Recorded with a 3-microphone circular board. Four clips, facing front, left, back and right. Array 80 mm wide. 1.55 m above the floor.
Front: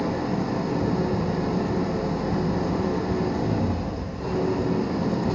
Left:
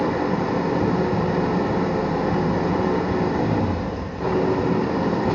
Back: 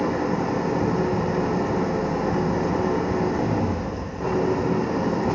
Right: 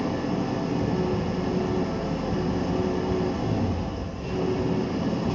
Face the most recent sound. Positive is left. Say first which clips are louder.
# left 5 dB, back 3 dB
turn(degrees=125)